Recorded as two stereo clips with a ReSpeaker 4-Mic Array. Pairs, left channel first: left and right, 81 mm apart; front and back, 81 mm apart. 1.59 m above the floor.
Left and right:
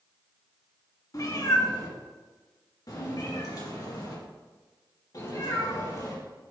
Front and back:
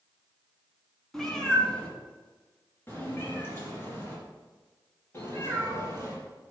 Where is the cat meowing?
80° left, 2 m; by 6.1 s 50° left, 5 m.